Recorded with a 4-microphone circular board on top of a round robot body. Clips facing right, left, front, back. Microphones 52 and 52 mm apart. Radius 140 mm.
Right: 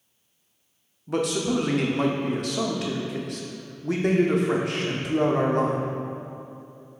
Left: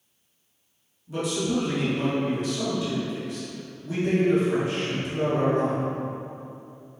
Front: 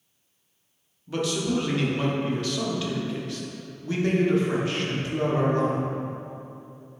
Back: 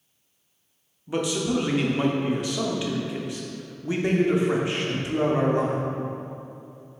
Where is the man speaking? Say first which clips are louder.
Right 2 dB, back 1 dB; 110° right, 1.4 m.